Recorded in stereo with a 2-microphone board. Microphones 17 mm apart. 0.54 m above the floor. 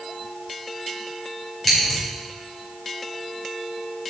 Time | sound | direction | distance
1.6 | scissors | 5° left (ahead or behind) | 4 m